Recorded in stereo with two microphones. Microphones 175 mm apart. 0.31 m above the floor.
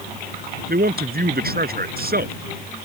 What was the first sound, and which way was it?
A man speaking, 60° right (ahead or behind).